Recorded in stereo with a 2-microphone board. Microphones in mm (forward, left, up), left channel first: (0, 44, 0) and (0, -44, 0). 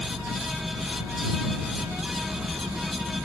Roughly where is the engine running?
Right.